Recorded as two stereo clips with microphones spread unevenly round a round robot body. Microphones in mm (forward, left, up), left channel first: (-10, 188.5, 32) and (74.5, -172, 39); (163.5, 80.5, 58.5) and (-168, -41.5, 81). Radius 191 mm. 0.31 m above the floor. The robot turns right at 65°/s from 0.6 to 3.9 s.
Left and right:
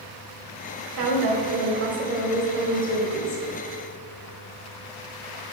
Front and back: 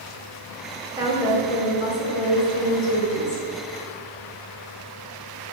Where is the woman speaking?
80° right, 1.5 m; by 3.4 s 80° left, 1.5 m.